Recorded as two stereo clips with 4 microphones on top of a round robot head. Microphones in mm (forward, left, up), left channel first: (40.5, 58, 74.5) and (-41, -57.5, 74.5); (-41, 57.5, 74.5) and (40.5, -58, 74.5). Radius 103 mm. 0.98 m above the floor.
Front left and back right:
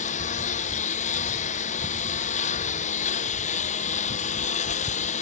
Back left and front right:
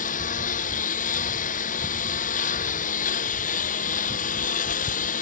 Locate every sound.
0.0 s a lawn mower: 95° left